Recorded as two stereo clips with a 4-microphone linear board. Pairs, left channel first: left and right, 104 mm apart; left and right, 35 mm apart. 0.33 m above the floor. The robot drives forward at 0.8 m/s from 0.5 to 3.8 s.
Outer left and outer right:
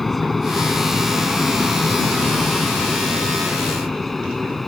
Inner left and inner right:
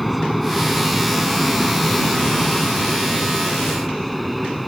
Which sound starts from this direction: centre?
An aircraft, at 0.0 s.